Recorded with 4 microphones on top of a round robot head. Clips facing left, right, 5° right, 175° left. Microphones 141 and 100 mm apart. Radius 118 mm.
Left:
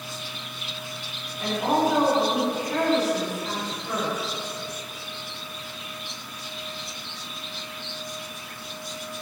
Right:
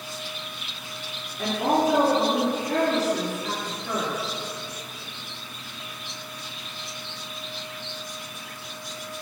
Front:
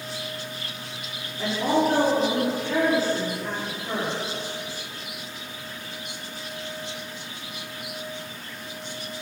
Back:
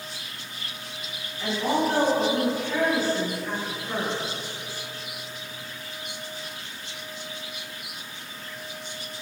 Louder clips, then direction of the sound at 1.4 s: Even, front 2 dB; 70° right.